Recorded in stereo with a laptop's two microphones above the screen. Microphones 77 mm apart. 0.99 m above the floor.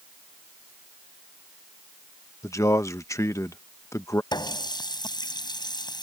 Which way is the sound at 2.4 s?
40° left (ahead or behind).